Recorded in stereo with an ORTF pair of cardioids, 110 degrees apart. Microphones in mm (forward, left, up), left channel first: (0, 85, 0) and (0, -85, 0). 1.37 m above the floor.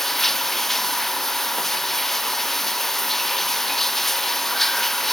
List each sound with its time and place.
0.0 s running water: straight ahead